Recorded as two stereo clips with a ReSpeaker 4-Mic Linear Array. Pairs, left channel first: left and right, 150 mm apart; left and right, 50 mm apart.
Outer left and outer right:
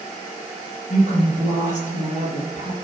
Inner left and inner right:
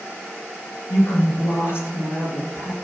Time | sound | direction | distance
0.9 | a woman speaking | 55° left (ahead or behind) | 3.5 m